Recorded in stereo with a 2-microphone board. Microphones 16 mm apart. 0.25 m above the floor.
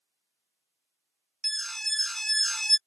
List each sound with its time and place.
1.4 s an alarm: 20° left (ahead or behind)